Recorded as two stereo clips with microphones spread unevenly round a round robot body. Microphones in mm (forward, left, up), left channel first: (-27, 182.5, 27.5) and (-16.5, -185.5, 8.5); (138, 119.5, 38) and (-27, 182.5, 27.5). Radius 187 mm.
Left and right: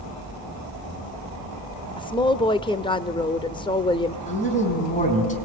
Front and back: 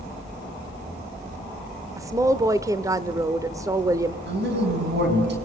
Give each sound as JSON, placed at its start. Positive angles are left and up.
{"t": 2.0, "sound": "a woman speaking", "azimuth_deg": 155, "distance_m": 0.8}
{"t": 4.3, "sound": "a man speaking", "azimuth_deg": 160, "distance_m": 4.5}